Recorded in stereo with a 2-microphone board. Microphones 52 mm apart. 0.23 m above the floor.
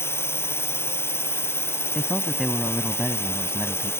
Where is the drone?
50° left (ahead or behind).